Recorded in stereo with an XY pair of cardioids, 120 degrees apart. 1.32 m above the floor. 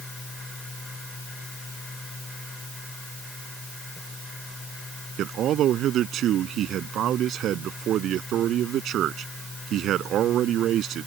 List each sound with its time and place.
0.0 s a fan: 20° left
5.2 s a man speaking: 60° right